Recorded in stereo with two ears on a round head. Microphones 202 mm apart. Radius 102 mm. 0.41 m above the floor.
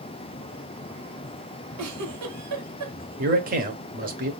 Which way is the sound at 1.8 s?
80° right.